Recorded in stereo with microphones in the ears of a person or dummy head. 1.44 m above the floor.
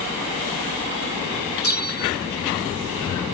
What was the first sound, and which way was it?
A bell, 50° left (ahead or behind).